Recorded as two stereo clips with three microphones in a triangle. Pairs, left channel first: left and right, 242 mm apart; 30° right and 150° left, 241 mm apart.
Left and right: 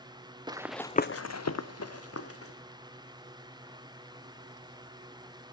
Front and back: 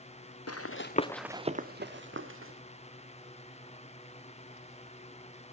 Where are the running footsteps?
15° right, 0.9 m; by 2.5 s 115° left, 1.8 m.